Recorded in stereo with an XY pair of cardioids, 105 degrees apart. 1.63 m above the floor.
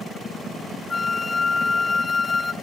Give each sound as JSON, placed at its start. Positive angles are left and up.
{"t": 0.9, "sound": "a flute", "azimuth_deg": 25, "distance_m": 1.0}